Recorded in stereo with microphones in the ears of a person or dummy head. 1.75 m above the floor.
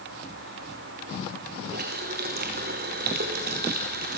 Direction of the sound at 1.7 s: 35° right (ahead or behind).